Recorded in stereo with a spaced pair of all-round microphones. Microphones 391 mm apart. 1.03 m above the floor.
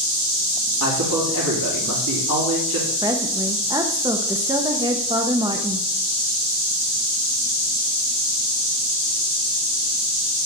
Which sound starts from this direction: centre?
A woman speaking, at 3.0 s.